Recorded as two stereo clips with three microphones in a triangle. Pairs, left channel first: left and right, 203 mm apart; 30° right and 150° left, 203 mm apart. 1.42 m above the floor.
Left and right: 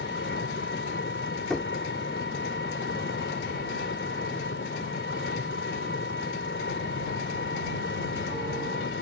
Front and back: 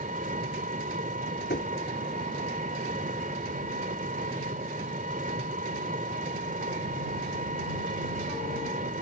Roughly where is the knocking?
Ahead.